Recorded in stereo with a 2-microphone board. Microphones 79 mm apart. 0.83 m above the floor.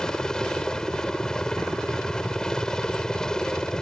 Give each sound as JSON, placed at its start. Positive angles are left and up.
{"t": 0.0, "sound": "a helicopter", "side_deg": 10}